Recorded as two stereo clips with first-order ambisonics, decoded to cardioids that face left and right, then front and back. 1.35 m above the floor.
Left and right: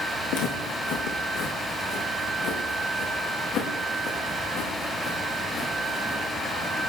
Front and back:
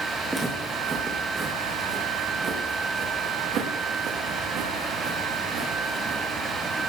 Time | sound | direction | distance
0.3 | footsteps | 100° left | 4 m